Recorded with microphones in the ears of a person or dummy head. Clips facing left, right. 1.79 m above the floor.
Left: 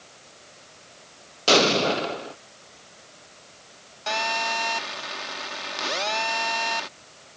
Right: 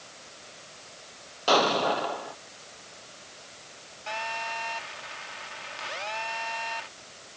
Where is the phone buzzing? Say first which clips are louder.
Left 7 dB; 70° left (ahead or behind).